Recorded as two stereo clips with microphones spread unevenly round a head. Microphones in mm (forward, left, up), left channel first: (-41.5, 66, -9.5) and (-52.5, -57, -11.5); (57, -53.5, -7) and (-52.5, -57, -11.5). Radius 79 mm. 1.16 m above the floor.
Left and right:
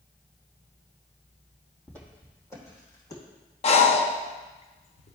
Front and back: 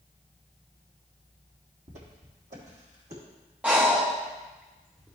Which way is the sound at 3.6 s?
100° left.